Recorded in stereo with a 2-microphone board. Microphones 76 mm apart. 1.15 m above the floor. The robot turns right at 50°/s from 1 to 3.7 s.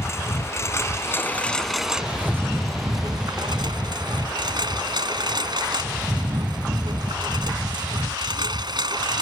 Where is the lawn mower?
140° left; by 9.2 s 85° right.